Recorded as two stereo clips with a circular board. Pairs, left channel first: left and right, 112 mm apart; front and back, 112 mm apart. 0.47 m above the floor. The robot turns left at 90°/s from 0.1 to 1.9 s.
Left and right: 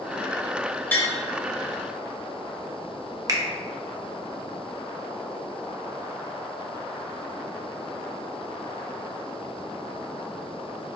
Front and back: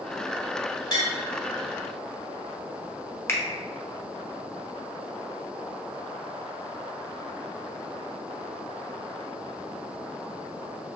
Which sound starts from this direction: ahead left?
Tapping, at 0.9 s.